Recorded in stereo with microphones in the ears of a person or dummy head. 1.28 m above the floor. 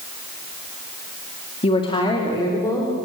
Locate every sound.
1.6 s a woman speaking: 25° left (ahead or behind), 1.9 m; by 3.0 s 15° left (ahead or behind), 3.5 m